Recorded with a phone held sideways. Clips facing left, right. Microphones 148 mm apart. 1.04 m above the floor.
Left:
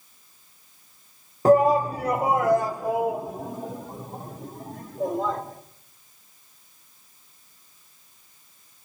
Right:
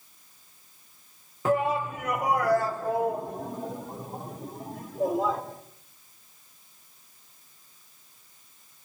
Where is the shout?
40° left (ahead or behind), 0.7 m; by 5.4 s 5° right (ahead or behind), 2.5 m.